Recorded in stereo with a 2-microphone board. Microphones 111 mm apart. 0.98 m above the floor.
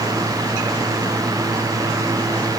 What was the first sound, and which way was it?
Only background noise.